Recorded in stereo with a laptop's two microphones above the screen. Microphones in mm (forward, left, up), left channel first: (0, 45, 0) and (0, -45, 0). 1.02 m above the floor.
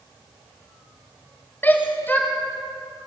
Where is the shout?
20° left (ahead or behind), 5 m.